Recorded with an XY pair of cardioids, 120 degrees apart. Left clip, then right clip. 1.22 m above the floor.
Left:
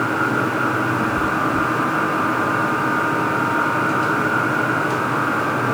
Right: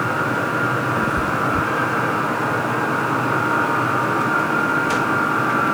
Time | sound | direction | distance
1.0 | a cat meowing | 35° right | 2 m